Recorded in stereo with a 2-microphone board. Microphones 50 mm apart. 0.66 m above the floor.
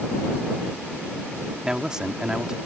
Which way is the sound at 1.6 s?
15° right (ahead or behind).